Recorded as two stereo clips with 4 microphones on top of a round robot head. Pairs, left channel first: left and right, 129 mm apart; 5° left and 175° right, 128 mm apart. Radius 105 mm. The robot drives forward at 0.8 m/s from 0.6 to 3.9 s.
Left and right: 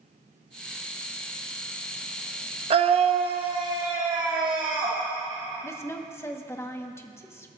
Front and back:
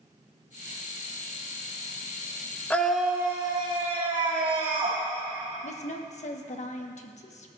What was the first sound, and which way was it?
A scream, 70° right.